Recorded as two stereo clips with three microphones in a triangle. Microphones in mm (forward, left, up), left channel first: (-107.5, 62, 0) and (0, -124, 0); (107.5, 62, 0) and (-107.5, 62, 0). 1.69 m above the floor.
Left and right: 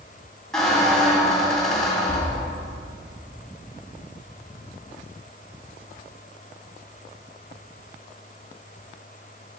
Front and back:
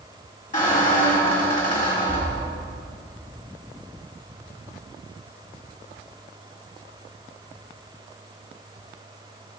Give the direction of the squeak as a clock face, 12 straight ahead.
11 o'clock.